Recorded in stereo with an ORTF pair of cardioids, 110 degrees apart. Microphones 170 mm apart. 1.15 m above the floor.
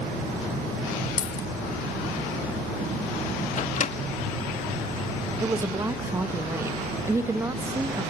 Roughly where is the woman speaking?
Ahead.